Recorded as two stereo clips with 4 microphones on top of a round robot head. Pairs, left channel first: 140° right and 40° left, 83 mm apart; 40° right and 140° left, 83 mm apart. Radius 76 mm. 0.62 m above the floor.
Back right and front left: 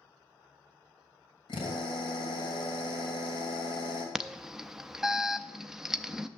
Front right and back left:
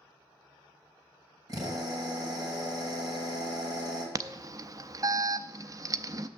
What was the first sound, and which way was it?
A drill, 170° right.